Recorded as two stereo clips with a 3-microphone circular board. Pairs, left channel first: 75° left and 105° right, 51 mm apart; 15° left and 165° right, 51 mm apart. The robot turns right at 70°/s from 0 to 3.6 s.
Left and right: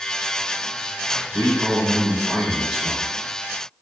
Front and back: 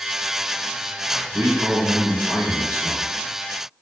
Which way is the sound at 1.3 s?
125° right.